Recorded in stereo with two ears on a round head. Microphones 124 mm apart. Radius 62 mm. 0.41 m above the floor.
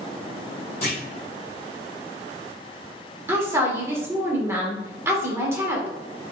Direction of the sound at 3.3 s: 20° right (ahead or behind).